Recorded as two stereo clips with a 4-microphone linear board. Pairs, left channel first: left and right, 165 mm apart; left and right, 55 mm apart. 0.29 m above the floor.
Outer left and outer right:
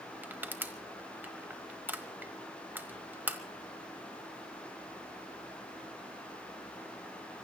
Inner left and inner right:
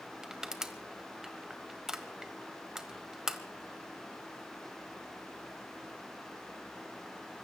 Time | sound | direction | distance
0.2 | crushing | 10° right (ahead or behind) | 1.3 m